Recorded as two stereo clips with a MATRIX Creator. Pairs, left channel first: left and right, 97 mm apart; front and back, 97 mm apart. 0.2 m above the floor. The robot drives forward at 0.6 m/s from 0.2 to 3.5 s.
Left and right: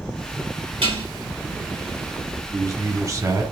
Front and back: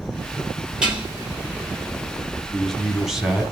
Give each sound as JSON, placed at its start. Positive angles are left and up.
{"t": 0.8, "sound": "dishes clattering", "azimuth_deg": -100, "distance_m": 2.5}
{"t": 2.5, "sound": "a man speaking", "azimuth_deg": -80, "distance_m": 1.7}